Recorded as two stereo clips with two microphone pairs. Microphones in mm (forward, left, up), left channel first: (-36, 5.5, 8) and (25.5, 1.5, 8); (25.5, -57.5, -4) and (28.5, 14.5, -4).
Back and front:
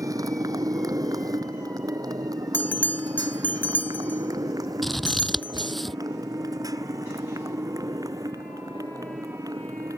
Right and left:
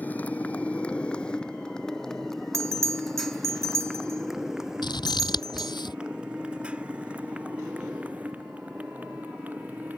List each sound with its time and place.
0.0 s a motorcycle: 25° right; by 10.0 s 20° left
2.5 s a bell: 125° left
4.8 s scissors: 95° right